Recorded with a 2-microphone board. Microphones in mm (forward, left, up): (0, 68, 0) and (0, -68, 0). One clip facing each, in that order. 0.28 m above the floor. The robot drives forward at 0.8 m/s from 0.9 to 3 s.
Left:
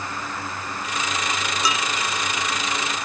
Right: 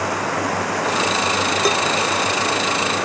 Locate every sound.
0.0 s running water: 90° right; by 3.0 s 75° right (ahead or behind)
1.6 s dishes clattering: 50° right (ahead or behind)